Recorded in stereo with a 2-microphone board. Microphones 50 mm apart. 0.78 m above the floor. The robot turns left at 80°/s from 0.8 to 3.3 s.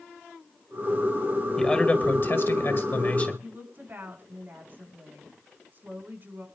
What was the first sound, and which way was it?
A man speaking, 170° left.